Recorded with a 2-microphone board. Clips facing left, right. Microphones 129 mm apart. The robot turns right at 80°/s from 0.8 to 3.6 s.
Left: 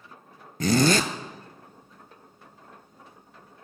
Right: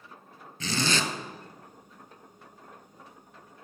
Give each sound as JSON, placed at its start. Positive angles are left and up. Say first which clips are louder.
{"t": 0.6, "sound": "a zipper", "louder": "left 9 dB", "side_deg": 50, "distance_m": 0.6}